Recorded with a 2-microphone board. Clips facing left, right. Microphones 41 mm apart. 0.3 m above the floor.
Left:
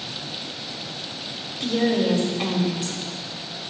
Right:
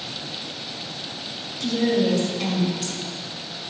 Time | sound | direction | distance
1.6 | a woman speaking | 25° left (ahead or behind) | 1.3 m